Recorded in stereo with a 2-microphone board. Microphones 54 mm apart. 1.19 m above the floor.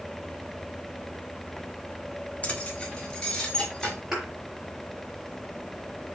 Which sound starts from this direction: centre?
A thud, at 4.1 s.